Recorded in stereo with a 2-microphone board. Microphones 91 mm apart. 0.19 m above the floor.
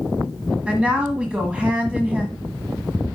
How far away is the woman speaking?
About 1.3 m.